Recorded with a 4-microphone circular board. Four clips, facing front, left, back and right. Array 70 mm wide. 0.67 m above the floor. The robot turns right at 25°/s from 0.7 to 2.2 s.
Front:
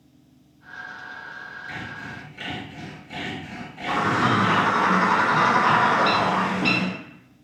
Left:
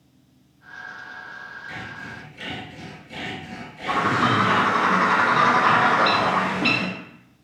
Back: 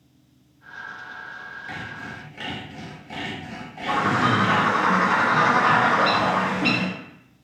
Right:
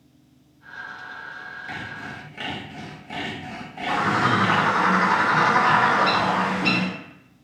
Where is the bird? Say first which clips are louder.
Left 1 dB, back 1 dB; 95° left, 1.6 m.